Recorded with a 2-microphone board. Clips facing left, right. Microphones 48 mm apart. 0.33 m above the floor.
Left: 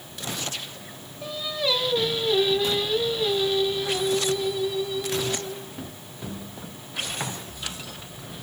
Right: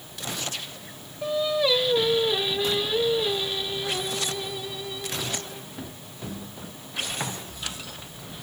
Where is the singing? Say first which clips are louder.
Right 5 dB; 15° right (ahead or behind), 1.6 m.